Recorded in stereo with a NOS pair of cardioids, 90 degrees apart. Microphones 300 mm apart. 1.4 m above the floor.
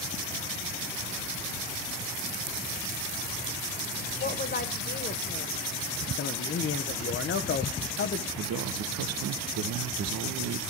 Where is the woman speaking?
35° left, 1.8 m.